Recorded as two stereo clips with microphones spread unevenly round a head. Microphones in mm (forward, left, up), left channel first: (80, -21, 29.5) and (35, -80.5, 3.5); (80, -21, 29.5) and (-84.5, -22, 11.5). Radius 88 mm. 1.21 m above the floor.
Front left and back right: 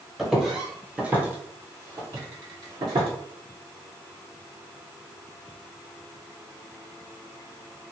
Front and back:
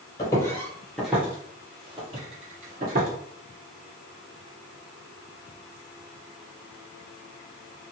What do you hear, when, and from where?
0.2 s footsteps: 5° left, 1.3 m; by 3.1 s 160° right, 1.6 m